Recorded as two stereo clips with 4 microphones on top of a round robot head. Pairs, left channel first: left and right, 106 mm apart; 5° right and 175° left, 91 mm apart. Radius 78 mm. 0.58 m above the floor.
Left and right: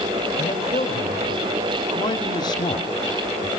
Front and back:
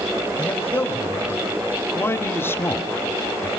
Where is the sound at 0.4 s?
55° left, 3.5 m.